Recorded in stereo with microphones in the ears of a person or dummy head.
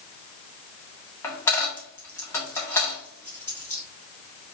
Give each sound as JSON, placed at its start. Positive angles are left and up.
{"t": 1.2, "sound": "a dropped coin", "side_deg": 10, "distance_m": 0.6}